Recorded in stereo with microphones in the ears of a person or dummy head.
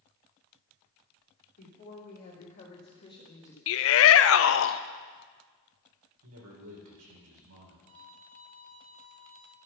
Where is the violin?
70° right (ahead or behind), 1.4 m.